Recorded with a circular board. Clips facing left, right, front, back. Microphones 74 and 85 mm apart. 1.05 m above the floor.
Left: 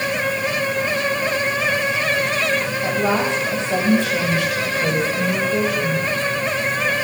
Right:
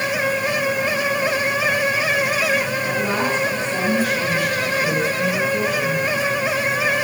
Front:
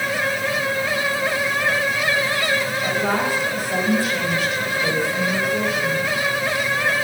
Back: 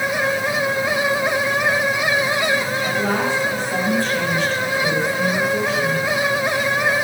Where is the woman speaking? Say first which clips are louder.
Left 2 dB, back 1 dB; 80° left, 5.5 m.